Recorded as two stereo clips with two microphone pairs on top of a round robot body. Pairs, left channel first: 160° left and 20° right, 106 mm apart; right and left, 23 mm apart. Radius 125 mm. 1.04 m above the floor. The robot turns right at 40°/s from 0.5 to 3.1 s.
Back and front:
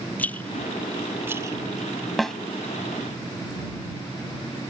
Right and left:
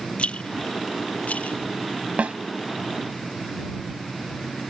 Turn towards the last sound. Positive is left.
turn(degrees=105)